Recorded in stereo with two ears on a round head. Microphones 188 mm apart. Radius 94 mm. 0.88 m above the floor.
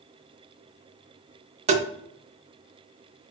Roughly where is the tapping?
Right.